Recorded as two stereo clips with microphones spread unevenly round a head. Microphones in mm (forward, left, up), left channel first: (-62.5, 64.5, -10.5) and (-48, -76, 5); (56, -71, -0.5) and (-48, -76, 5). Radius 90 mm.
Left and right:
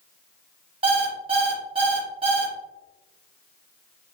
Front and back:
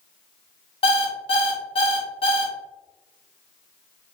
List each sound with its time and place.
0.8 s an alarm clock: 25° right, 1.2 m